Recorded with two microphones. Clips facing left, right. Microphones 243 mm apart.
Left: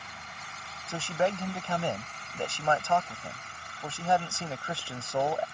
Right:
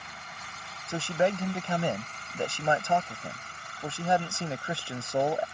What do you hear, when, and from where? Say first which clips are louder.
0.9 s a man speaking: right 2 dB; 20° right (ahead or behind)